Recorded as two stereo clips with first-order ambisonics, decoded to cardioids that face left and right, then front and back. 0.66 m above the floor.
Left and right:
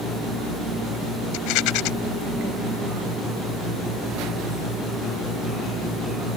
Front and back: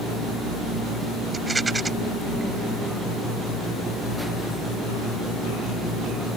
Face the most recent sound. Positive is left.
turn(degrees=100)